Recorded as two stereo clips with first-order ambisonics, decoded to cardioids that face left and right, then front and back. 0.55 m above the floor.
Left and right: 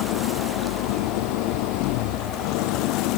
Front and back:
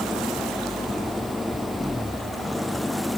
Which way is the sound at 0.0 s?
85° left.